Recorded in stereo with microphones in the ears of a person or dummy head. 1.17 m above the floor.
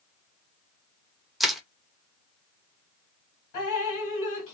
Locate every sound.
1.4 s crushing: centre (ahead or behind), 0.6 m
3.5 s dripping: 65° left (ahead or behind), 1.8 m